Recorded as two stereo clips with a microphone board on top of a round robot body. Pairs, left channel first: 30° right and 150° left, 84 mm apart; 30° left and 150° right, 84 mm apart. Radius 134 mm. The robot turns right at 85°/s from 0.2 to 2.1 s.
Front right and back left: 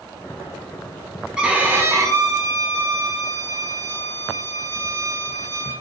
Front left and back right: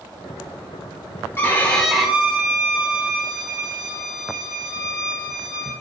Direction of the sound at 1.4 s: 75° left.